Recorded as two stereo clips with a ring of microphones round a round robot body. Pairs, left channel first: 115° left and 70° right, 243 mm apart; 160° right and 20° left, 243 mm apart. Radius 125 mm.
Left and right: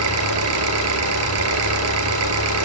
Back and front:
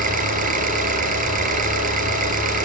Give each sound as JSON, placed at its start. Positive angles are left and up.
{"t": 0.0, "sound": "an engine running", "azimuth_deg": -35, "distance_m": 4.5}